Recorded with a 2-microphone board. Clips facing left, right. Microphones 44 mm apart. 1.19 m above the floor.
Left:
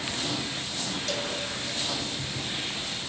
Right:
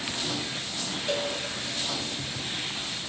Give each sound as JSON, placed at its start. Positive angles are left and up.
{"t": 1.1, "sound": "a cowbell", "side_deg": -20, "distance_m": 0.5}